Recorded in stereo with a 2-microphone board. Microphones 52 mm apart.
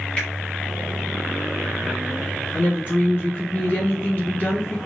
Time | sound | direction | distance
0.2 | a finger snap | 20° left (ahead or behind) | 1.8 m
2.5 | a woman speaking | 35° left (ahead or behind) | 1.9 m